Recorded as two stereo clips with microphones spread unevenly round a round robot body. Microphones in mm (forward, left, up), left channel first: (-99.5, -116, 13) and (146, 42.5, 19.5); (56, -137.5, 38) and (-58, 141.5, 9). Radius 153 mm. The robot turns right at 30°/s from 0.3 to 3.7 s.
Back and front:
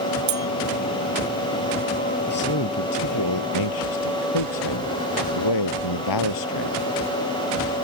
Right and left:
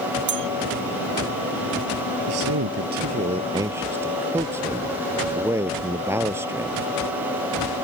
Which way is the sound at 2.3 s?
150° left.